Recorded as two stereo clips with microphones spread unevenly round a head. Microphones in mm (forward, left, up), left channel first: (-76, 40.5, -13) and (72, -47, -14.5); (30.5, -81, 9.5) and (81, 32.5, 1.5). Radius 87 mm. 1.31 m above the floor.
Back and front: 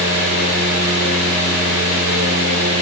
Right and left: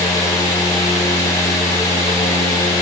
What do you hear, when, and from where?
0.0 s a fan: 50° right, 6 m